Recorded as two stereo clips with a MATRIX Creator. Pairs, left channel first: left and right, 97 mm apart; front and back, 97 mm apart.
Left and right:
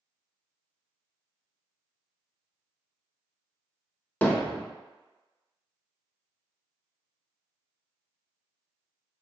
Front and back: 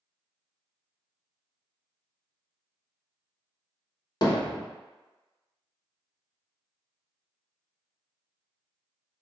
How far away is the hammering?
About 0.7 m.